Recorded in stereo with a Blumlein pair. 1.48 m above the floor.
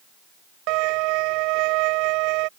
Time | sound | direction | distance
0.7 | a violin | 45° right | ?